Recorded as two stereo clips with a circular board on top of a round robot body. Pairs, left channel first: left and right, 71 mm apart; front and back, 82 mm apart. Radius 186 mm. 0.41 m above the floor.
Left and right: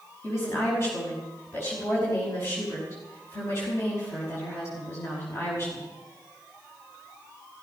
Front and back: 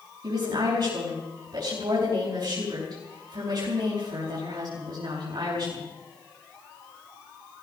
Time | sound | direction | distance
0.2 | a woman speaking | 145° left | 5.5 m